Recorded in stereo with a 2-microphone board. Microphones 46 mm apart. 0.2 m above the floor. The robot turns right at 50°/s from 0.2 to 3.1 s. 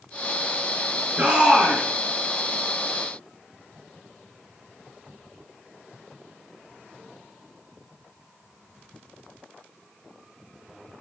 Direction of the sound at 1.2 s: 35° right.